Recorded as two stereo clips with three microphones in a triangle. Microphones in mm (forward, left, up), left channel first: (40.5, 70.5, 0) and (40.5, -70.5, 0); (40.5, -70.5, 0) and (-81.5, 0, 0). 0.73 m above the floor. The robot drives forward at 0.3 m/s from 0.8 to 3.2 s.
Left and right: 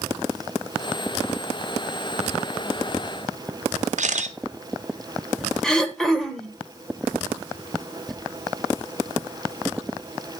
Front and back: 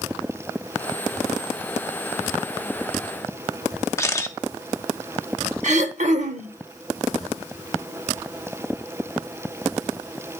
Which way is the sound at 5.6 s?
175° left.